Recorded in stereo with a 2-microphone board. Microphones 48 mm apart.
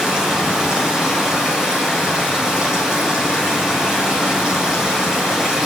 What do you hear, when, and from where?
0.0 s running water: 15° right (ahead or behind), 7 m